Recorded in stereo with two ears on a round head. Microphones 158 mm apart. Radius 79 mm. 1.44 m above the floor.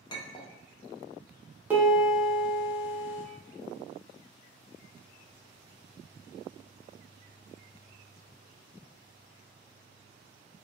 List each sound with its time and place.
0.1 s a clink: 25° left (ahead or behind), 0.5 m
1.7 s a piano: 10° right (ahead or behind), 0.8 m